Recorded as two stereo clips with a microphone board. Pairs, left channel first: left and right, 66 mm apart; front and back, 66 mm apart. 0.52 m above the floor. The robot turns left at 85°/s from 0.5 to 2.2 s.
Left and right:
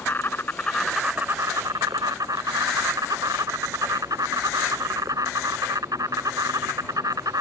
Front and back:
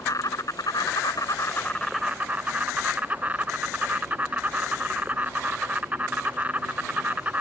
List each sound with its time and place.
0.0 s an insect: 30° left; by 7.4 s 110° right